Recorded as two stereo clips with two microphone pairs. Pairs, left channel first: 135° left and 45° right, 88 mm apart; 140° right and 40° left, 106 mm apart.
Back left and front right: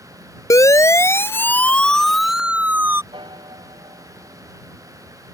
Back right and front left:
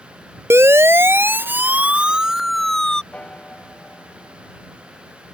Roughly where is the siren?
Left.